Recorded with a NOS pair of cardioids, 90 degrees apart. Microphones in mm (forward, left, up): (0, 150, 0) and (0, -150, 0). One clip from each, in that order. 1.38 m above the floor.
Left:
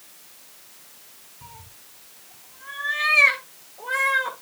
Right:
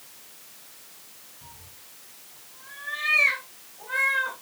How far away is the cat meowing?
About 3 m.